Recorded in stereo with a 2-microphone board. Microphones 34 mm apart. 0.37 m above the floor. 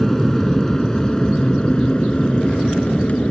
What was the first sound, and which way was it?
An aircraft, 10° left (ahead or behind).